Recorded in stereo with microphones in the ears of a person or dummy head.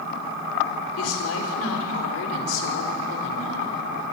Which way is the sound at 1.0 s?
80° left.